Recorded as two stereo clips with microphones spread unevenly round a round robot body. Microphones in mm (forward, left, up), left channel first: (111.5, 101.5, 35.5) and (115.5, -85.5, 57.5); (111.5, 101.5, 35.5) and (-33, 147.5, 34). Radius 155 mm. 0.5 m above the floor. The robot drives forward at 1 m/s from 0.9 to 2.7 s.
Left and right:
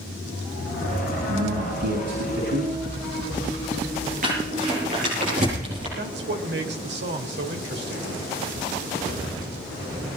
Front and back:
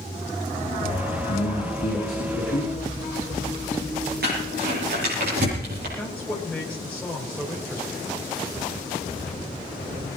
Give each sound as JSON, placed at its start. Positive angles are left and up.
{"t": 1.3, "sound": "a man speaking", "azimuth_deg": -65, "distance_m": 5.0}
{"t": 4.2, "sound": "crumpling", "azimuth_deg": -150, "distance_m": 7.5}
{"t": 6.0, "sound": "a man speaking", "azimuth_deg": -100, "distance_m": 2.5}